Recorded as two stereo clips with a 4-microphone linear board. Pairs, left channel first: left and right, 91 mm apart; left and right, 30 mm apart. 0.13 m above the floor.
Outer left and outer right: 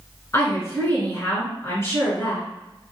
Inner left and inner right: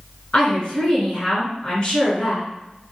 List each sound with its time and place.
0.3 s a woman speaking: 35° left (ahead or behind), 1.7 m